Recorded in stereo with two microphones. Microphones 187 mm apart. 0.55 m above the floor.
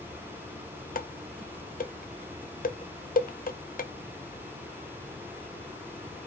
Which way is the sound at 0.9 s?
45° left (ahead or behind).